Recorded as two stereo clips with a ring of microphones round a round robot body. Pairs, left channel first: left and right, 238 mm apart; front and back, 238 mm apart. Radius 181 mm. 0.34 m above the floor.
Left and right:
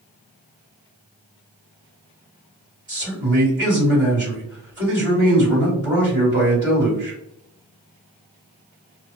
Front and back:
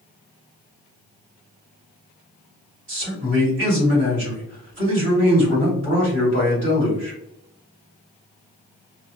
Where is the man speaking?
150° right, 1.8 m.